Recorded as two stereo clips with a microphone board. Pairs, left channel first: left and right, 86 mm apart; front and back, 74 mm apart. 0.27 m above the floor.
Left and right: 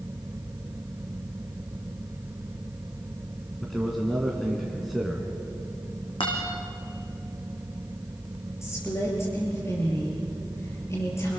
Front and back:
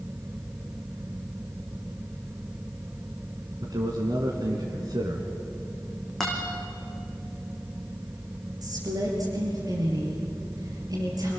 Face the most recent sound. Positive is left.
turn(degrees=145)